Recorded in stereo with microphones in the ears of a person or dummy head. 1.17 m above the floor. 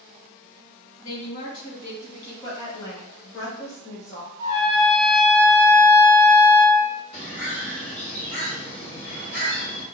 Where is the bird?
80° left, 1.7 m.